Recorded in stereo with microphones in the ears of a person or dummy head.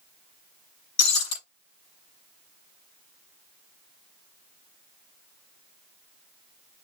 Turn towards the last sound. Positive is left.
turn(degrees=70)  # may be behind; listen again after turning